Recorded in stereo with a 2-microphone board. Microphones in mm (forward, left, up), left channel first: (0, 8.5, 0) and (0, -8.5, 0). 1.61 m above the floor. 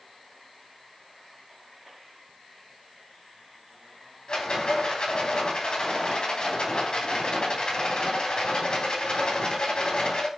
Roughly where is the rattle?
Left.